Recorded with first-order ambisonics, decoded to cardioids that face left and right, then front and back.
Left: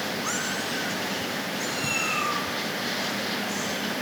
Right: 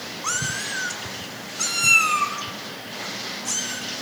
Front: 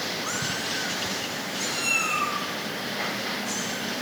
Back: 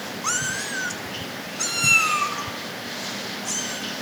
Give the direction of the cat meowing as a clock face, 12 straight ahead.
5 o'clock.